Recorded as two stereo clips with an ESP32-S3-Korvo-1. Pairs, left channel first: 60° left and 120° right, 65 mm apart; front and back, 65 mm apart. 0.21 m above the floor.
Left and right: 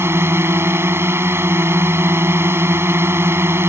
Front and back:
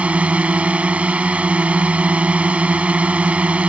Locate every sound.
0.0 s a drone: 120° right